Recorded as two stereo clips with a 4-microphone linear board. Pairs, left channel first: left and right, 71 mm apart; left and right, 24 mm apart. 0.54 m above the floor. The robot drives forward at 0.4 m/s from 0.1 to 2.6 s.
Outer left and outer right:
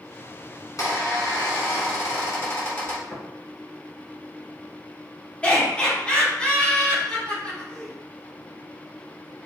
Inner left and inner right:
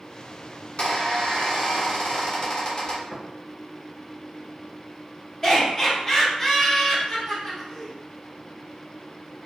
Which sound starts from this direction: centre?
Laughter, at 5.4 s.